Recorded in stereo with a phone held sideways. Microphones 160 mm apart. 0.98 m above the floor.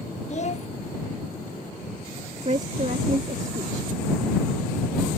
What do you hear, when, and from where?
0.3 s a child speaking: 45° left (ahead or behind)
2.5 s a woman speaking: 45° right (ahead or behind)